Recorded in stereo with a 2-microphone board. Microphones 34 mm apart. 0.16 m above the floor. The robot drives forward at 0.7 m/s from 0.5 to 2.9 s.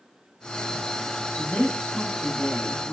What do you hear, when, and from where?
1.4 s a woman speaking: 20° left (ahead or behind), 2.5 m; by 2.9 s 30° left (ahead or behind), 1.9 m